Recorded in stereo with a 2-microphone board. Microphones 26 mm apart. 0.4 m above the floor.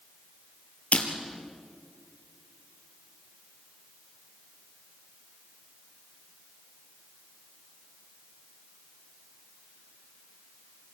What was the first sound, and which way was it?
Breaking glass, 65° left (ahead or behind).